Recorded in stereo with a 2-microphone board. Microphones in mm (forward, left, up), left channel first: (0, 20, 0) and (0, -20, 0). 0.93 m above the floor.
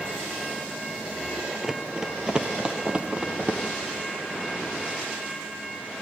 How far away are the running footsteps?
About 1.2 m.